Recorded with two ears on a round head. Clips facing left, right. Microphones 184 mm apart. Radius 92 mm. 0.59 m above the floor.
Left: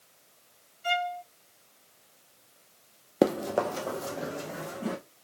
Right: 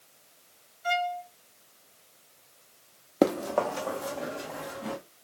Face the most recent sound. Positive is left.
turn(degrees=40)  # may be behind; listen again after turning